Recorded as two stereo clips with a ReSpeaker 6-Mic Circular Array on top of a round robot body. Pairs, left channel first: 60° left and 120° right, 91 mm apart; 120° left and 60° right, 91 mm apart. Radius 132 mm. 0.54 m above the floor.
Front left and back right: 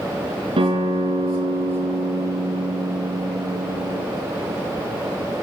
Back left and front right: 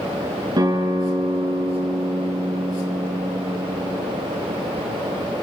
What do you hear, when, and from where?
0.6 s a guitar: 100° right, 7 m